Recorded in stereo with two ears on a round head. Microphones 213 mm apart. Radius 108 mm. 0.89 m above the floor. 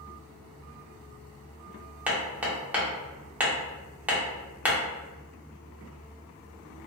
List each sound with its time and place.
2.1 s hammering: 5° right (ahead or behind), 0.8 m